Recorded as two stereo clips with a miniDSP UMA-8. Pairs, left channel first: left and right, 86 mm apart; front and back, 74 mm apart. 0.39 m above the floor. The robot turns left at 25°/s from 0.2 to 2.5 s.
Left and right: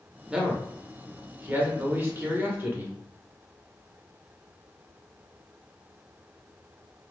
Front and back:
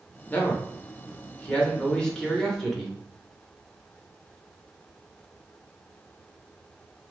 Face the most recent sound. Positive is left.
turn(degrees=-80)